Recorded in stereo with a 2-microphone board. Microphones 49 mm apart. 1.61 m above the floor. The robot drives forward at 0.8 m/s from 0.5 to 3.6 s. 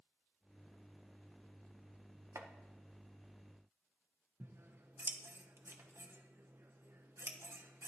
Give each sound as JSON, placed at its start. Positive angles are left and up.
{"t": 2.4, "sound": "chopping", "side_deg": -80, "distance_m": 1.2}
{"t": 4.4, "sound": "scissors", "side_deg": -60, "distance_m": 1.3}